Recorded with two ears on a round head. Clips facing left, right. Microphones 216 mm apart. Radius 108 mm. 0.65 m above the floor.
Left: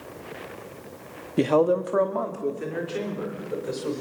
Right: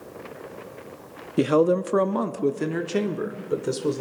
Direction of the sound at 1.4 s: 10° right (ahead or behind).